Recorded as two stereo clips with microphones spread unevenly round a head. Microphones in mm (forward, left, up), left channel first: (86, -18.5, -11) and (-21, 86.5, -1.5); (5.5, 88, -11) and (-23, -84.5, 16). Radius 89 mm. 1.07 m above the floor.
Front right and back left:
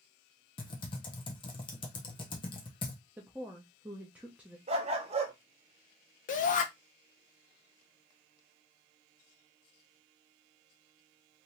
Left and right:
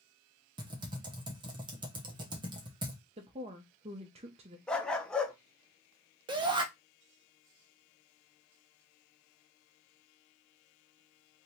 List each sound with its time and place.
0.6 s typing on a keyboard: 35° right, 0.8 m
3.2 s a woman speaking: 140° right, 0.6 m
4.7 s a dog barking: 175° left, 0.6 m
6.3 s a shout: 30° right, 0.6 m